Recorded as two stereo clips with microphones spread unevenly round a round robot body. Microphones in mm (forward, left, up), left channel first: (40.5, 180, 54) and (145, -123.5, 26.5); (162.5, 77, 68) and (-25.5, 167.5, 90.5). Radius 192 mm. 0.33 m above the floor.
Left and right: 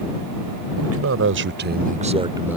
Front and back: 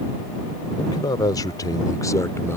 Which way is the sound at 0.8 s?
90° right.